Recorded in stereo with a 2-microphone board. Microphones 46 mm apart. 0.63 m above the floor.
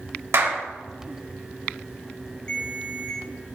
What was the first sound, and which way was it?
A clap, 70° right (ahead or behind).